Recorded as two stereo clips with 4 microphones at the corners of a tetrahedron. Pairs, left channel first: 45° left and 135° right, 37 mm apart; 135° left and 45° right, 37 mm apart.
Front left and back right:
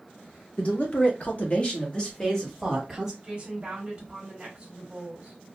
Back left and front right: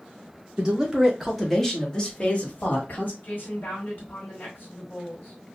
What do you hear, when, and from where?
0.6 s a man speaking: 25° left, 1.5 m; by 3.1 s 140° left, 1.5 m
3.2 s a woman speaking: 160° left, 1.7 m